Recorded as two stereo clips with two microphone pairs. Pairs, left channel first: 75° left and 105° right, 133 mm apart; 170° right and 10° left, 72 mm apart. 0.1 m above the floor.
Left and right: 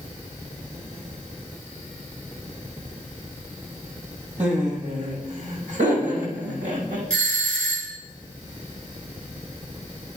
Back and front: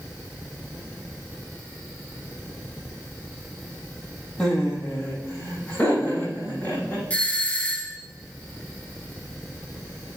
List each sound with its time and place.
4.4 s laughter: 90° right, 4.5 m; by 7.0 s 95° right, 6 m
7.1 s a doorbell: 155° left, 1.8 m